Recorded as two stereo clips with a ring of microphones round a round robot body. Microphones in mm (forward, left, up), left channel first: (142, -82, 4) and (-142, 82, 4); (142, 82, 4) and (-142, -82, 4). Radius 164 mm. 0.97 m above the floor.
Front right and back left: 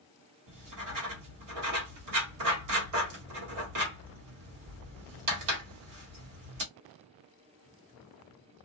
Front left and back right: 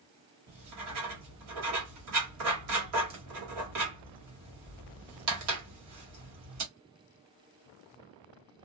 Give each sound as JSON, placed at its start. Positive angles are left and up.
{"t": 0.5, "sound": "writing", "azimuth_deg": 175, "distance_m": 1.6}